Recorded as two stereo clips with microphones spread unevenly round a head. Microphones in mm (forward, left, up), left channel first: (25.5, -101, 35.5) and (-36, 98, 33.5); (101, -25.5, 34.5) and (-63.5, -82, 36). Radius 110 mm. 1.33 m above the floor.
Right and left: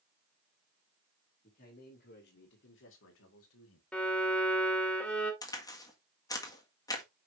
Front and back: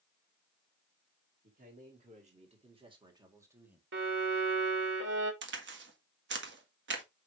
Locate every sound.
1.4 s a man speaking: 125° right, 2.5 m; by 3.8 s 80° right, 1.9 m
3.9 s a violin: 155° right, 2 m
5.4 s a crack: 145° right, 1.7 m